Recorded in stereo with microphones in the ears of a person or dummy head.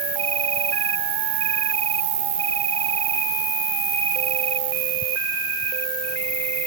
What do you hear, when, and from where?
0.0 s an insect: 35° right (ahead or behind)